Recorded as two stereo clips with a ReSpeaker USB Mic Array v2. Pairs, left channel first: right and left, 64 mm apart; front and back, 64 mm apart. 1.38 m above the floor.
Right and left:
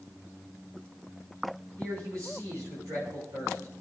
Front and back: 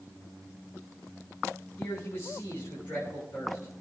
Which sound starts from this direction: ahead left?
A man speaking, at 1.8 s.